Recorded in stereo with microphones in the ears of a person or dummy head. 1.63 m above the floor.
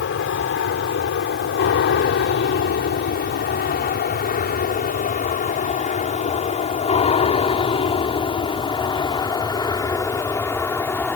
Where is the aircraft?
60° left (ahead or behind); by 11.2 s 15° left (ahead or behind).